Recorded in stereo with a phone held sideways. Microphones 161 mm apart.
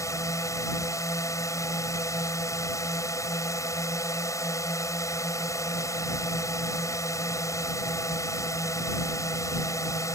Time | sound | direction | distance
0.0 | a drone | 20° left (ahead or behind) | ?